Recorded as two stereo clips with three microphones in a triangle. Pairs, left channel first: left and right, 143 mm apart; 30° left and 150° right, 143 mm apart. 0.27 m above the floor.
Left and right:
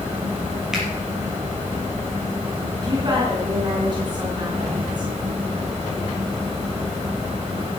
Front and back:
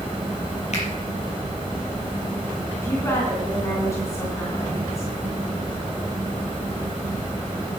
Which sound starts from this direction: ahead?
A finger snap, at 0.7 s.